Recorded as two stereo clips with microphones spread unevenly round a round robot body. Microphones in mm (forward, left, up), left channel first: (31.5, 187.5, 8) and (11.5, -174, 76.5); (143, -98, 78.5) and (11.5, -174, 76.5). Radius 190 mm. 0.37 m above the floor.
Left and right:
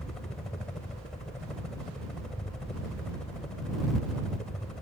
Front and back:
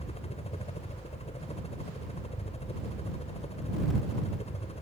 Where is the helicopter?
10° left.